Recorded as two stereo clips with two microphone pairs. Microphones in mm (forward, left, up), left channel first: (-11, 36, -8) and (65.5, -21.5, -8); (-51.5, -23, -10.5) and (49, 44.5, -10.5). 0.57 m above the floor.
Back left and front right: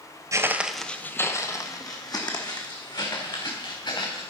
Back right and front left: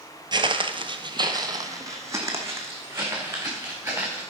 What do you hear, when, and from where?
0.3 s footsteps: 5° left, 0.7 m; by 4.2 s 110° left, 3.5 m